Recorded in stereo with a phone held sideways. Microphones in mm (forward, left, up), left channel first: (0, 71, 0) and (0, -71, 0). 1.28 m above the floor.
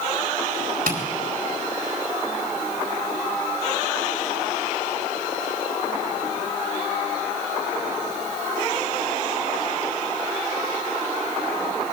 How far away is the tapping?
About 4 m.